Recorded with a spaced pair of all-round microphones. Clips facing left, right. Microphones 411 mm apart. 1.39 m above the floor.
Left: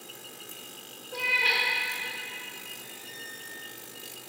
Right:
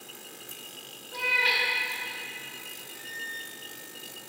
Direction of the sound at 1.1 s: 40° right (ahead or behind).